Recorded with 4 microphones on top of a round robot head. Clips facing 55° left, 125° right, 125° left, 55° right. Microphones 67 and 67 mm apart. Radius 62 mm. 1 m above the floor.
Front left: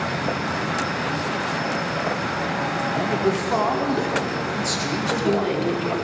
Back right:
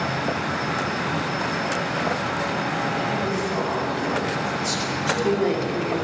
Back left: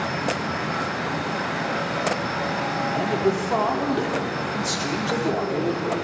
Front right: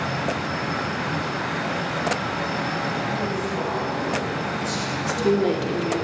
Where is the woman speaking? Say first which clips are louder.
Even, front right 5 dB; 50° right, 2.5 m.